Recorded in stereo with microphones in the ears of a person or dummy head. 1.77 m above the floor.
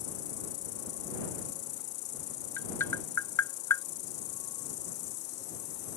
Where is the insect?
65° left (ahead or behind).